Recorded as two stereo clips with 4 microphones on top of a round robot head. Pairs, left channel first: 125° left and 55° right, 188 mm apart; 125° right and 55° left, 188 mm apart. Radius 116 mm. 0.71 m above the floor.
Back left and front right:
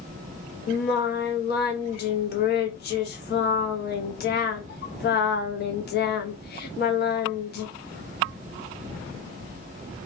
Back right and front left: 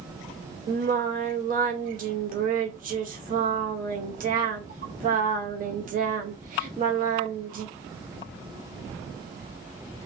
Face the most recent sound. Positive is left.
turn(degrees=95)